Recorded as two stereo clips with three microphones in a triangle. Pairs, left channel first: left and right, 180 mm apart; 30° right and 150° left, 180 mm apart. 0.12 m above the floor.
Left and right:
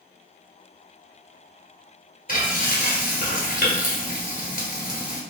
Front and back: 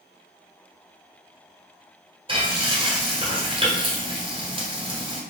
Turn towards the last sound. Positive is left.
turn(degrees=100)